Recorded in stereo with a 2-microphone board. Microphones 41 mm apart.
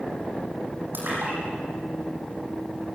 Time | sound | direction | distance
0.9 | a splash | 60° right (ahead or behind) | 9.5 m